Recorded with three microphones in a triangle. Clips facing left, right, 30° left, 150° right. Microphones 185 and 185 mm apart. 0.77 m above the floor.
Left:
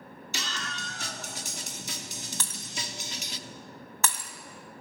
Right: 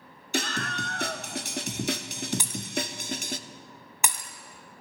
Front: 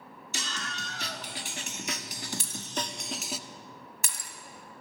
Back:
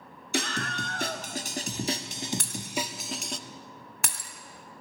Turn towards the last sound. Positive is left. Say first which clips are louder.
# right 8 dB, back 2 dB
turn(degrees=-165)